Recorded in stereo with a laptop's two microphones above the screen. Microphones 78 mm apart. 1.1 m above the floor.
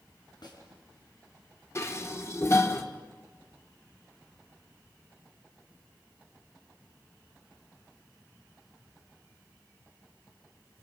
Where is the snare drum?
65° left (ahead or behind), 6.5 m.